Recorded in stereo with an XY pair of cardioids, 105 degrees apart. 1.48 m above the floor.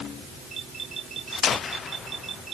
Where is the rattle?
No rattle in this recording.